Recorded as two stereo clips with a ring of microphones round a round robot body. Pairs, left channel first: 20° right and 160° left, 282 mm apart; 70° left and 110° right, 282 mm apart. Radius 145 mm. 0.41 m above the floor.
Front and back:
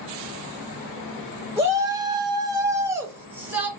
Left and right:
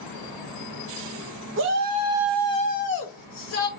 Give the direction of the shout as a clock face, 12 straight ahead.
4 o'clock.